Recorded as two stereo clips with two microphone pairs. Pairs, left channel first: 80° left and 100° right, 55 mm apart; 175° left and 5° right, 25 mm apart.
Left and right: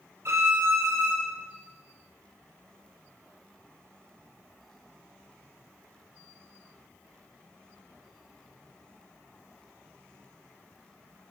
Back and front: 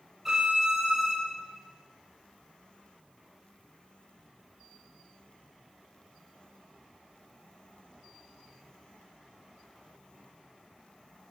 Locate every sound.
0.2 s a violin: 80° right, 1.8 m